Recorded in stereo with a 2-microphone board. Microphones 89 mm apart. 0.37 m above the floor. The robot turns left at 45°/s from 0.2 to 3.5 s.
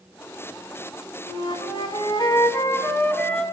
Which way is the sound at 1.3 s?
105° left.